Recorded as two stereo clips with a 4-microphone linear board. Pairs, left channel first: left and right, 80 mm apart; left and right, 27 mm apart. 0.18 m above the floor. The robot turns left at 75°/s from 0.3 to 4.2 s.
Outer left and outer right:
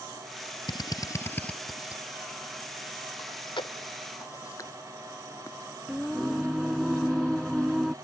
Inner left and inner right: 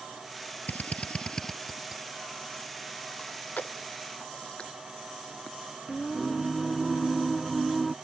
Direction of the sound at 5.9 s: Centre (ahead or behind).